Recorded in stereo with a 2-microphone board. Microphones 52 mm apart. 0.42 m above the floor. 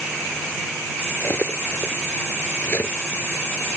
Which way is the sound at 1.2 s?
40° left (ahead or behind).